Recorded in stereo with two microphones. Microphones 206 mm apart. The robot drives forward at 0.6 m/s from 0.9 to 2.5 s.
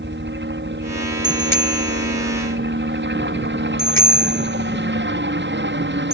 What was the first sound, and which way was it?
A helicopter, 65° right (ahead or behind).